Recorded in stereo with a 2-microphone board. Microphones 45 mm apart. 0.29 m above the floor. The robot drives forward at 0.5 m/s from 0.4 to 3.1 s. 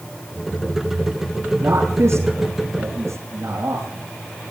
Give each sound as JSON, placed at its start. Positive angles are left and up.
{"t": 1.6, "sound": "a man speaking", "side_deg": -75, "distance_m": 5.5}